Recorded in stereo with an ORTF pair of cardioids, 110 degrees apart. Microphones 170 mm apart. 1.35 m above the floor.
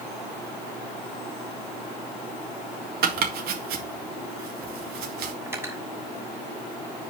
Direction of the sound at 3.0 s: 65° right.